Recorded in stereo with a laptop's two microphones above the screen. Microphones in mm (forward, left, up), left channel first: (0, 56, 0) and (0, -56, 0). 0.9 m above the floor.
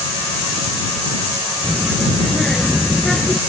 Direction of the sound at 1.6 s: Centre (ahead or behind).